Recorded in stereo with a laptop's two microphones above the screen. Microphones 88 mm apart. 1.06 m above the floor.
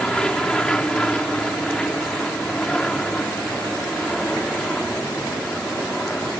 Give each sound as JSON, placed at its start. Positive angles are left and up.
{"t": 0.0, "sound": "an aircraft", "side_deg": 10}